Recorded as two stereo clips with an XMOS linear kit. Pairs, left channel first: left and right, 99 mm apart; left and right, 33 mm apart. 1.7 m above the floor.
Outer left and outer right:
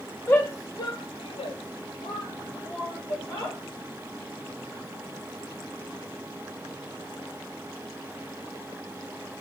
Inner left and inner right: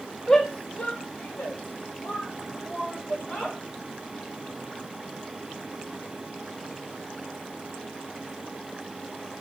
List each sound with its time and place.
0.3 s a shout: 25° left (ahead or behind), 2 m; by 3.6 s 40° left (ahead or behind), 4 m